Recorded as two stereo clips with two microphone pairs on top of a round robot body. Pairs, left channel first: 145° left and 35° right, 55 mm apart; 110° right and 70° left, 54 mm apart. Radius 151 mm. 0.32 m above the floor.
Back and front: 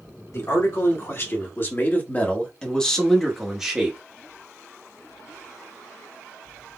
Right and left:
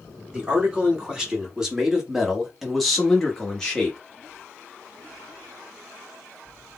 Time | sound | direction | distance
0.3 | a man speaking | 140° left | 2.0 m